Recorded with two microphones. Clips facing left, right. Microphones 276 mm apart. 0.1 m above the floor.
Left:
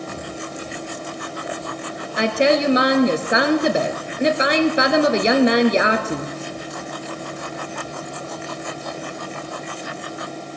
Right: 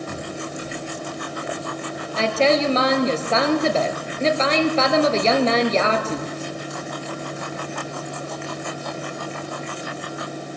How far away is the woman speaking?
About 1.2 m.